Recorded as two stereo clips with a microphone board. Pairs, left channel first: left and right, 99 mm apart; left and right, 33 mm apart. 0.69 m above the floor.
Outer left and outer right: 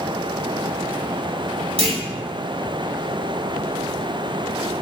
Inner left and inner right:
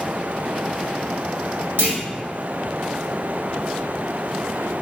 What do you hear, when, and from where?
1.8 s a clunk: 80° right, 2.5 m